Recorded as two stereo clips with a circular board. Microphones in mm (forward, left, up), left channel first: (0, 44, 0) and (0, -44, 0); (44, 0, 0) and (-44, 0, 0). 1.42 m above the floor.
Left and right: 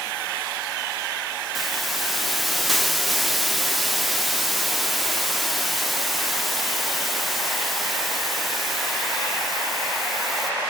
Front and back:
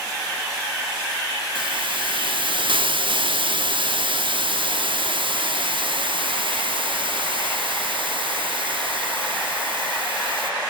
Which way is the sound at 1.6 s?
Straight behind.